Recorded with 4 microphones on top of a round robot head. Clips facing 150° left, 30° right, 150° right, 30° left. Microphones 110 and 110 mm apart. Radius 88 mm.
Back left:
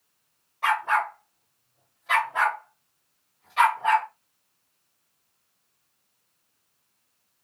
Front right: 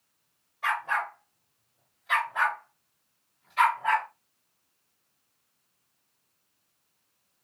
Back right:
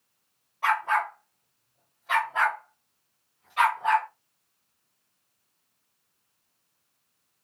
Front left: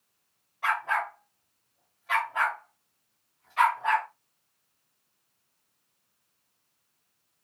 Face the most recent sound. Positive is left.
turn(degrees=135)